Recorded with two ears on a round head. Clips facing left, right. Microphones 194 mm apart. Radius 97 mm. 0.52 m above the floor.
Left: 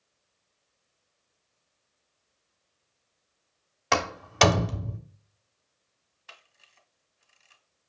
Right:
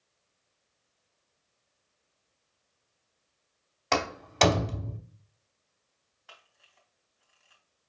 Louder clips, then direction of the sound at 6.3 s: Left 1 dB; 30° left (ahead or behind).